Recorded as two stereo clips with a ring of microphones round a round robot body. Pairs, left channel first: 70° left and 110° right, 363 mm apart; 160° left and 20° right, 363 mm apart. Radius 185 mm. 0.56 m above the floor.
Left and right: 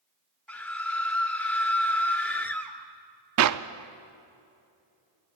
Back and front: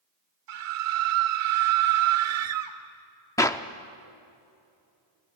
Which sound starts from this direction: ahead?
A scream, at 0.5 s.